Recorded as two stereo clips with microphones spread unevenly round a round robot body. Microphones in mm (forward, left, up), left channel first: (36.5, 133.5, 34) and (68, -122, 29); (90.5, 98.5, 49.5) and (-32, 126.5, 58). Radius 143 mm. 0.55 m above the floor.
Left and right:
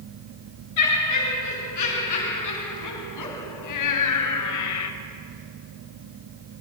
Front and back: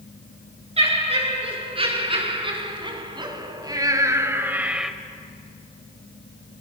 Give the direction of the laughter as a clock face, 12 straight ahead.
8 o'clock.